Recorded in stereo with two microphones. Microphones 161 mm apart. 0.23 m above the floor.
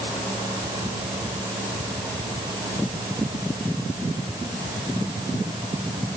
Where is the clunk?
No clunk in this recording.